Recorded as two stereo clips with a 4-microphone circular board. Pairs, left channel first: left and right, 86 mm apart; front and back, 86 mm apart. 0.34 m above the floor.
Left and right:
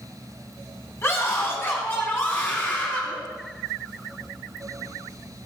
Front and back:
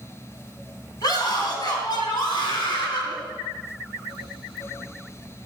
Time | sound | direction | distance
1.0 | a scream | 35° left | 3 m